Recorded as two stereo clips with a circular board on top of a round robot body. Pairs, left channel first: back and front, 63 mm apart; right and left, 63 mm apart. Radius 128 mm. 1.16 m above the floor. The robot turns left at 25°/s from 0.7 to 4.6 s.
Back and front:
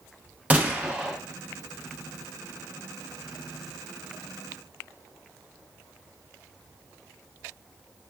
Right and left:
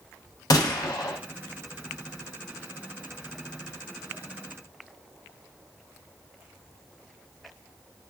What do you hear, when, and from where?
0.5 s a gunshot: 70° right, 0.6 m; by 1.2 s 80° right, 0.6 m